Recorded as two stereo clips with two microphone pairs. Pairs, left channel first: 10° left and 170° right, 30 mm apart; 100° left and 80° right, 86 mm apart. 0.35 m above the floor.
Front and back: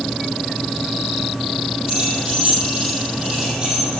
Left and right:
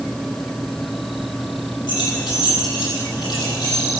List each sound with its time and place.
1.9 s keys jangling: 120° left, 7 m; by 4.0 s 130° left, 8.5 m